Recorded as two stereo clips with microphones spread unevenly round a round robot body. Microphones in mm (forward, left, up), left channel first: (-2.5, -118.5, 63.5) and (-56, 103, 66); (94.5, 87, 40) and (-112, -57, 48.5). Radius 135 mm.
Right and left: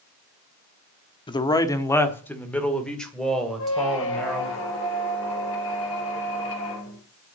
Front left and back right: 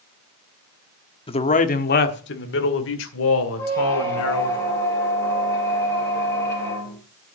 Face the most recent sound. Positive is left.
turn(degrees=-45)